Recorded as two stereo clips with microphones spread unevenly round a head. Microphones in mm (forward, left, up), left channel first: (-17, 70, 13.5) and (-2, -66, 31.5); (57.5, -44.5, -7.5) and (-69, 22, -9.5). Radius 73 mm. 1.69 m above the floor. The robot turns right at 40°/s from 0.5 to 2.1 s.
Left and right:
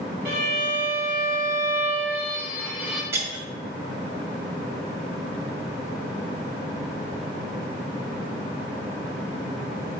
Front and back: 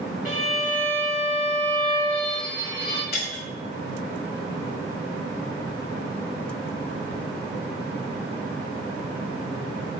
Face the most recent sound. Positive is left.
turn(degrees=-15)